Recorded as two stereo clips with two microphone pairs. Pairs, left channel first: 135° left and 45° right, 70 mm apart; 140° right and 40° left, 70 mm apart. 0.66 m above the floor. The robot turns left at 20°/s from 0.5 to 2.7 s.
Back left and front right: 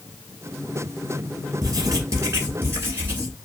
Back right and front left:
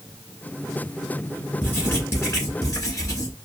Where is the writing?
80° right, 1.8 m; by 3.4 s 100° right, 1.8 m.